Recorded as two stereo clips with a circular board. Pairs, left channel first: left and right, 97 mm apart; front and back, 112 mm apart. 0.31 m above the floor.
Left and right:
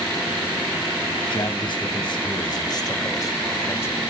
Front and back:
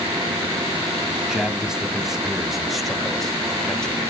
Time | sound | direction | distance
1.1 | a man speaking | 95° left | 2.5 m